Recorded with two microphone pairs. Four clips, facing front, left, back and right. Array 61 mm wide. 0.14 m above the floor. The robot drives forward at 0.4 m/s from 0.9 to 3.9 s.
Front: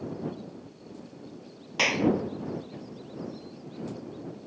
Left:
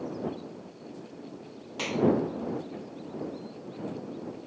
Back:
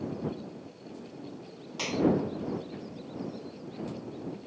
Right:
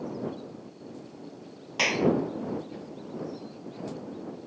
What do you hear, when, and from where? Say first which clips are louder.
1.8 s a clap: right 1 dB, front 2 dB; 45° right